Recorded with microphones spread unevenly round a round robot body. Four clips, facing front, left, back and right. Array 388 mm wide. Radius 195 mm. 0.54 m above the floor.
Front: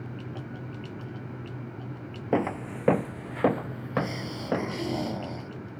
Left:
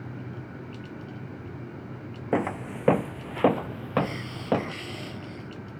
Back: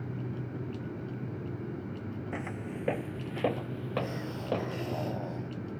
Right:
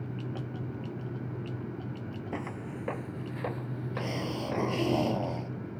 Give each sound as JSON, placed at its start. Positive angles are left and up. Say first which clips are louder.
{"t": 2.3, "sound": "footsteps", "louder": "left 13 dB, front 14 dB", "azimuth_deg": 40}
{"t": 4.0, "sound": "a hiss", "louder": "left 6 dB, front 5 dB", "azimuth_deg": -55}